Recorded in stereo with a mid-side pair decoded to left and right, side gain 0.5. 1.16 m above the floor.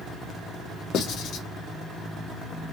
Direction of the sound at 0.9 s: 65° left.